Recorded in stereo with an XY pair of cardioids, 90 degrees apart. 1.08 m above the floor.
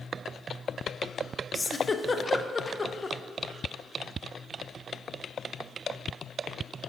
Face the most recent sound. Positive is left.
turn(degrees=30)